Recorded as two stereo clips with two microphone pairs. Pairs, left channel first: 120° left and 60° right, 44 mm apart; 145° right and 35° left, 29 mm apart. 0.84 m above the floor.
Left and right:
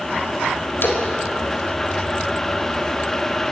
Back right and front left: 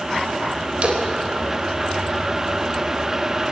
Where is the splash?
85° left, 3.5 m.